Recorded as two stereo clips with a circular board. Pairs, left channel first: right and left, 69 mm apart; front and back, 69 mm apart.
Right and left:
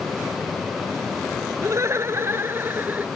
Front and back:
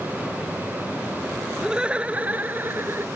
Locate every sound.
1.6 s laughter: 105° left; by 3.1 s 145° left